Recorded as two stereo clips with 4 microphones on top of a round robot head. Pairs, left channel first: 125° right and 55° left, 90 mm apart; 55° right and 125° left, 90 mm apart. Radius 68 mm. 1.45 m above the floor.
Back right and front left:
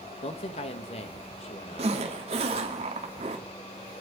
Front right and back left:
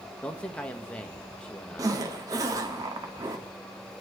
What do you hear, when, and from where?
0.2 s a man speaking: 135° right, 1.6 m
1.8 s a zipper: 70° left, 2 m